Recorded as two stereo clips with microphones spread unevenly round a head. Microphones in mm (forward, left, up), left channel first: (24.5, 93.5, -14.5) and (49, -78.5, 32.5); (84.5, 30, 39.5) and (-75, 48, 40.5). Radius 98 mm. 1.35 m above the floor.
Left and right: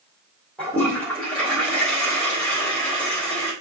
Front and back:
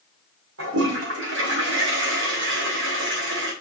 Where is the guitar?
I don't hear a guitar.